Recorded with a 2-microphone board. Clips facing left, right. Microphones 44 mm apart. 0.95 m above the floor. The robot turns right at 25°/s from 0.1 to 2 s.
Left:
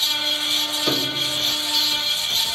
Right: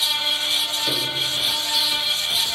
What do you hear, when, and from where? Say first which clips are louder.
0.9 s a piano: left 1 dB; 40° left (ahead or behind), 0.7 m; by 1.4 s 50° left (ahead or behind), 0.7 m